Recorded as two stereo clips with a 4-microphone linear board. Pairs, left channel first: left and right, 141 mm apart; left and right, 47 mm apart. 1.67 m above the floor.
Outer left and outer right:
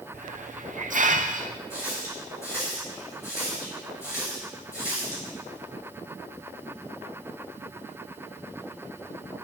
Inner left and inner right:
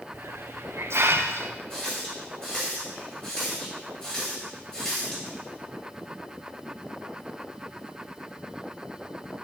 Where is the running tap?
20° left (ahead or behind), 5.5 m.